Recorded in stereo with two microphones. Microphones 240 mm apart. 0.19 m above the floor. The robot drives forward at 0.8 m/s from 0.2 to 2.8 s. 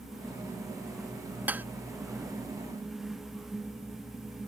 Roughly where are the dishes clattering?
Centre.